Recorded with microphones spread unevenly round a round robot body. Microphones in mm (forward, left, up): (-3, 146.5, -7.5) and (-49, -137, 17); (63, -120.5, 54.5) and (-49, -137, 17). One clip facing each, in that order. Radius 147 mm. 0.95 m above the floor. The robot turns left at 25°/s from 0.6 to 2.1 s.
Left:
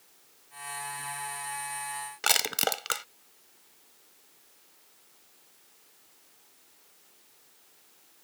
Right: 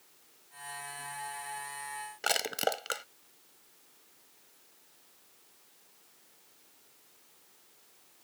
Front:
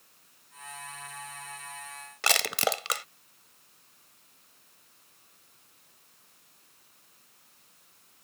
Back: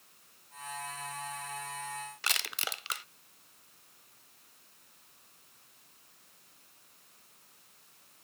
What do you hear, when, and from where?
2.2 s crushing: 5° left